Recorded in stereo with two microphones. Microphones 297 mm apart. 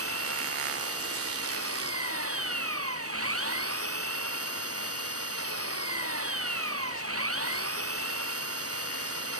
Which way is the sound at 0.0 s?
50° right (ahead or behind).